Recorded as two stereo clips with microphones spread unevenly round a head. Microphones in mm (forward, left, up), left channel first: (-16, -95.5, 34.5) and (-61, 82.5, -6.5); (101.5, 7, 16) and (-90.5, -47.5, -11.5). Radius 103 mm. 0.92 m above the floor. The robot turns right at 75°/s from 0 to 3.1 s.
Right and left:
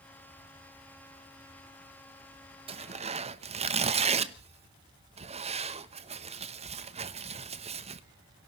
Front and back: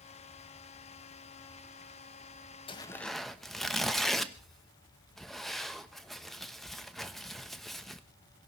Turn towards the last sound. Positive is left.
turn(degrees=115)